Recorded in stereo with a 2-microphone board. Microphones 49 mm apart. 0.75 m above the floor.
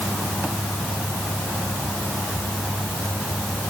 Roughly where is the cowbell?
No cowbell in this recording.